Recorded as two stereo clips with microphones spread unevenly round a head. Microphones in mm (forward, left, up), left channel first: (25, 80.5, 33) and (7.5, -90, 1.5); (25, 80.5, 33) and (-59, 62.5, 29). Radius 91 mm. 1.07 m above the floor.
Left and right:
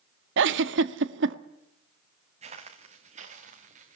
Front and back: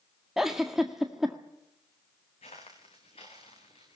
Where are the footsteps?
40° right, 4 m; by 4.0 s 45° right, 5.5 m.